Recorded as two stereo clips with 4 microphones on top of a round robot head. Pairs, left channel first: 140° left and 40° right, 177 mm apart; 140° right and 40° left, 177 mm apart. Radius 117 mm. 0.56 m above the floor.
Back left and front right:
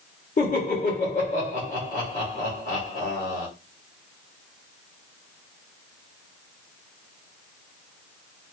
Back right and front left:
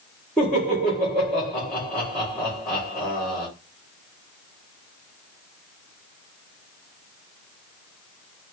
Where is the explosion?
I don't hear an explosion.